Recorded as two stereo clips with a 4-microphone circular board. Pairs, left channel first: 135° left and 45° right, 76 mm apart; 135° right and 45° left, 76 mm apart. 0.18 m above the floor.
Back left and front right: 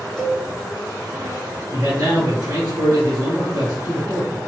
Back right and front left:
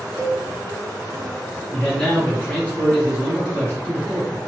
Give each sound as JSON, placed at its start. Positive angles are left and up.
{"t": 0.2, "sound": "a cowbell", "azimuth_deg": -145, "distance_m": 1.9}
{"t": 1.7, "sound": "a man speaking", "azimuth_deg": -65, "distance_m": 2.0}